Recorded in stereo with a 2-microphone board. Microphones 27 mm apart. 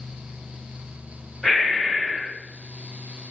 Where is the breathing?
10° left (ahead or behind), 1.4 m.